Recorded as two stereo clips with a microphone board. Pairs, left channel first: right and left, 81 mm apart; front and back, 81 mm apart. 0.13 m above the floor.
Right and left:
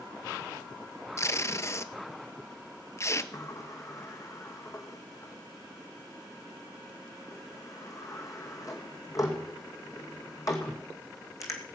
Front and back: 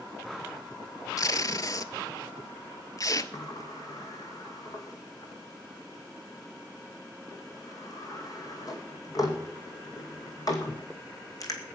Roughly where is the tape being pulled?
Ahead right.